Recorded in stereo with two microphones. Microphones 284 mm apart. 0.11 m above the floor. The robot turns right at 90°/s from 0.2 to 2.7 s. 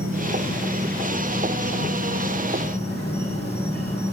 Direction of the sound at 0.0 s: 85° right.